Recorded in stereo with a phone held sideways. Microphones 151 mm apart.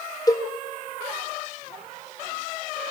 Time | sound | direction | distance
0.3 | a cowbell | 25° left (ahead or behind) | 3 m